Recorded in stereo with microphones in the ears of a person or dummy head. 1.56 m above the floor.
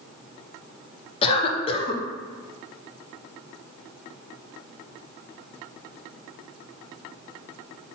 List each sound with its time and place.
1.2 s a cough: 30° left (ahead or behind), 1.1 m